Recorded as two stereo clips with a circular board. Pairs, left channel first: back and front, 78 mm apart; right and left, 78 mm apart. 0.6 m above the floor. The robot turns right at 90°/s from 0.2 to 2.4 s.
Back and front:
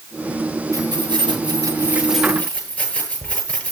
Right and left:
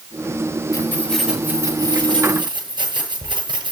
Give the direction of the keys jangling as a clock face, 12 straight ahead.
1 o'clock.